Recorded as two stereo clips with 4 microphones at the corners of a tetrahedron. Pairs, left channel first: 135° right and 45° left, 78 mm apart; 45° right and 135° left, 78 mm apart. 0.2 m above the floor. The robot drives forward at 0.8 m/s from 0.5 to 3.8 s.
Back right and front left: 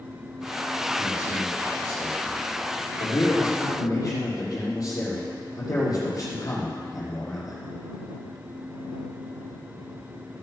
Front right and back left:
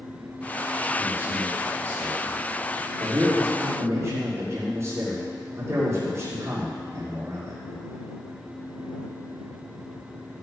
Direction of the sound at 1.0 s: 165° right.